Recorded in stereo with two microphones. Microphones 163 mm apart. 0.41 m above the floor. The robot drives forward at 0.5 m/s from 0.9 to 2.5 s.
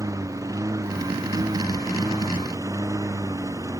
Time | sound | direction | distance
0.0 | a lawn mower | 20° right (ahead or behind) | ?